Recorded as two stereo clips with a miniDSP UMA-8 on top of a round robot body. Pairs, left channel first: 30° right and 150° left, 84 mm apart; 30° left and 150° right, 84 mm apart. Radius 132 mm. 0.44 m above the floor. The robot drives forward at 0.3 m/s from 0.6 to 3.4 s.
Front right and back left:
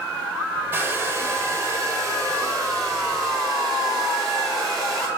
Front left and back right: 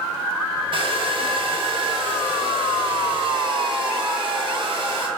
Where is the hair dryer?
145° right, 0.9 m; by 5.1 s 160° right, 1.6 m.